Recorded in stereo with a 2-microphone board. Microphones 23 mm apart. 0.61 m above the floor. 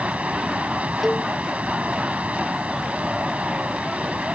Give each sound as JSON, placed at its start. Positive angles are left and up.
{"t": 0.0, "sound": "running water", "side_deg": -75}
{"t": 1.0, "sound": "a cowbell", "side_deg": -5}